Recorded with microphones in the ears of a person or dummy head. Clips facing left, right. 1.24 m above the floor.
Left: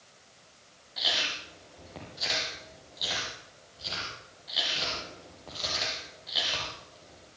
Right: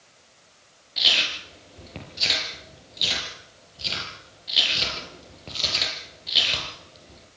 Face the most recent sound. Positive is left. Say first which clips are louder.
# right 2 dB
turn(degrees=-40)  # may be behind; listen again after turning